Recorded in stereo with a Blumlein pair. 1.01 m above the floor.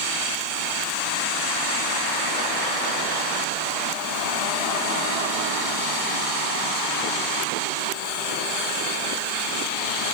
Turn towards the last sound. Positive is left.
No sound to turn to.